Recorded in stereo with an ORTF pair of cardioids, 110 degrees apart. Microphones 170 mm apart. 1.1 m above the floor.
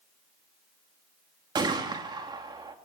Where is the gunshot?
30° right, 2.5 m.